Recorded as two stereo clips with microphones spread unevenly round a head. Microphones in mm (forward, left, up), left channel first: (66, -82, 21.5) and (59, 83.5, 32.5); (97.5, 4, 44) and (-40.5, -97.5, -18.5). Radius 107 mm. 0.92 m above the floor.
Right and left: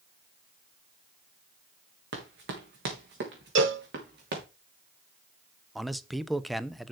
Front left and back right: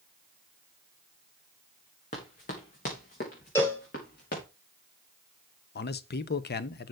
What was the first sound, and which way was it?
Running footsteps, 85° left.